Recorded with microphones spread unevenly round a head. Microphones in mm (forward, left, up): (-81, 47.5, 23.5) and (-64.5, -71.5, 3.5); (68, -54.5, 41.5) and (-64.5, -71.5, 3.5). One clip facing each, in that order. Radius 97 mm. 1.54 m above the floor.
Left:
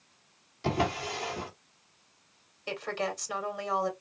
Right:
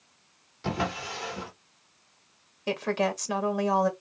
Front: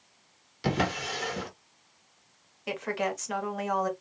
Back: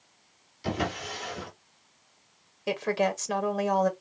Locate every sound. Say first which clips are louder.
0.6 s a drawer: left 1 dB, front 2 dB; 20° left, 1.6 m
2.7 s a woman speaking: right 6 dB, back 4 dB; 120° right, 1.7 m